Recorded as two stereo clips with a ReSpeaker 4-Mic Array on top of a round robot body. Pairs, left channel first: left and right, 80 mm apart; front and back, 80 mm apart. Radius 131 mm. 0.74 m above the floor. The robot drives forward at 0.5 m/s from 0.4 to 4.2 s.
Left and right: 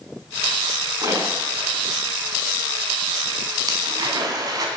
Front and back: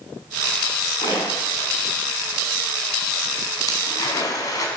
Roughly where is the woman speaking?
No woman speaking in this recording.